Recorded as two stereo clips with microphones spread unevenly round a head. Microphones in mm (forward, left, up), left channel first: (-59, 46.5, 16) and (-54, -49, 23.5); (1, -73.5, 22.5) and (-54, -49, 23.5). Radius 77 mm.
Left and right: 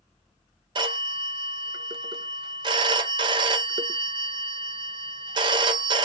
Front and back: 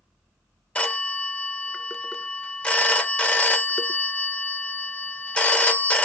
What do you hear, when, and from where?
0.8 s a phone ringing: 90° right, 0.6 m